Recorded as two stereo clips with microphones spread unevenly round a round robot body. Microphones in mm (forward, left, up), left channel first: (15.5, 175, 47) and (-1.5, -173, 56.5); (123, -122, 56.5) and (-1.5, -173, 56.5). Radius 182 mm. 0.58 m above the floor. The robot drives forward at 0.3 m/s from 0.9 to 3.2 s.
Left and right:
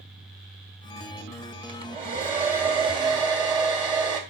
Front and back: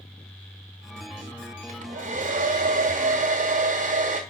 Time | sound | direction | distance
1.7 | a hair dryer | 165° right | 1.6 m